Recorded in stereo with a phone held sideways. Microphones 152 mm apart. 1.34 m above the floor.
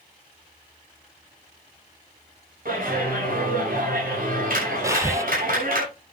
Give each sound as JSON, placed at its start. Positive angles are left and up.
{"t": 2.6, "sound": "a clap", "side_deg": -70, "distance_m": 6.5}
{"t": 4.8, "sound": "breathing", "side_deg": -20, "distance_m": 0.7}